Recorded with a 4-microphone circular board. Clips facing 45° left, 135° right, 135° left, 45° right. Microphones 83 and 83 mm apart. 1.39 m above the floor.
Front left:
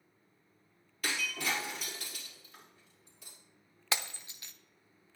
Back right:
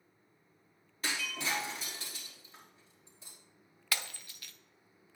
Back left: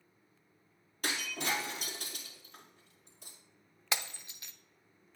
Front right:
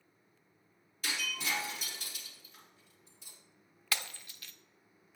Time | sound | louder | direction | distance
1.0 | breaking glass | front left 1 dB, back left 2 dB | 165° left | 4 m
3.9 | breaking glass | front left 2 dB, back left 1 dB | 90° left | 0.6 m